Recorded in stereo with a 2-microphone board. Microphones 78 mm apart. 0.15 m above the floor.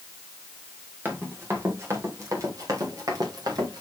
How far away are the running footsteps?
About 3 m.